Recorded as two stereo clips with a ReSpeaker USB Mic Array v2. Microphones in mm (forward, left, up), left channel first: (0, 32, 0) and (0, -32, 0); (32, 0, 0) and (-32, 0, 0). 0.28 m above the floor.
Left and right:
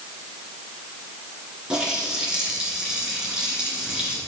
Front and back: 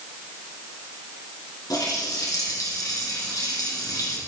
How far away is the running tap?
About 3 m.